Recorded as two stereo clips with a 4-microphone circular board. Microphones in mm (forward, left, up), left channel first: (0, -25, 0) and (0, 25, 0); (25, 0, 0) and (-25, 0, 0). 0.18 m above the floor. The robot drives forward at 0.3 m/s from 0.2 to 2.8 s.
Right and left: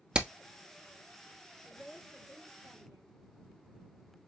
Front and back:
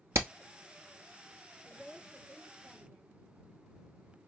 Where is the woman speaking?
125° left, 3.5 m; by 3.2 s 130° left, 3.5 m.